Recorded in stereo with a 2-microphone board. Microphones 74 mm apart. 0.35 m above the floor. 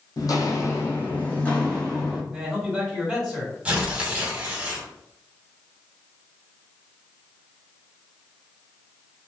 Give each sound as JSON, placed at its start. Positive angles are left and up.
{"t": 0.2, "sound": "footsteps", "side_deg": 60, "distance_m": 0.7}
{"t": 2.3, "sound": "a man speaking", "side_deg": -5, "distance_m": 1.7}
{"t": 3.6, "sound": "tearing paper", "side_deg": -15, "distance_m": 0.7}